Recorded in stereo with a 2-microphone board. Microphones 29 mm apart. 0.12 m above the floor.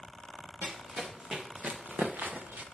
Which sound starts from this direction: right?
Running footsteps, at 0.6 s.